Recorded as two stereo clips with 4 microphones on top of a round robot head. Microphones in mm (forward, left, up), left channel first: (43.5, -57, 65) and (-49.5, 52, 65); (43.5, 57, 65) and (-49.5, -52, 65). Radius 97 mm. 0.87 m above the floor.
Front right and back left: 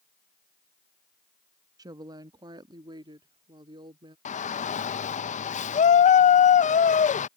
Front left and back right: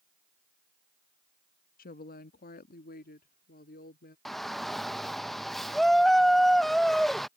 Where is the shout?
40° right.